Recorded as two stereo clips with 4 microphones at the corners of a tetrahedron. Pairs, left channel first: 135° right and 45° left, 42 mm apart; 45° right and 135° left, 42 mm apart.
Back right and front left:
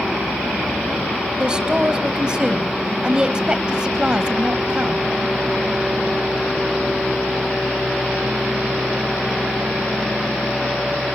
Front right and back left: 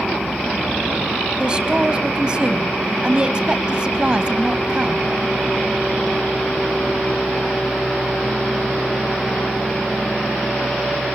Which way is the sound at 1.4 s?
95° left.